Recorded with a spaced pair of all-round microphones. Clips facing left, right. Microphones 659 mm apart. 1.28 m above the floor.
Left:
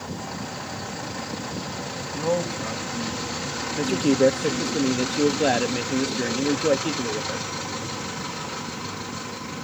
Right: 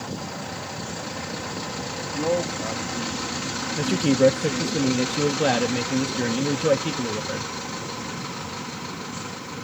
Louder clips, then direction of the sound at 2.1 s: Right 1 dB; 35° left (ahead or behind).